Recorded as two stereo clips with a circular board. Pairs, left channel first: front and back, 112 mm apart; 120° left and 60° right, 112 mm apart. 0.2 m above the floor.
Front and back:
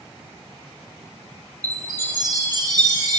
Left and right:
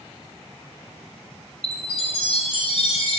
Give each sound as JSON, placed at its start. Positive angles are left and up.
{"t": 1.6, "sound": "a chime", "azimuth_deg": 130, "distance_m": 2.0}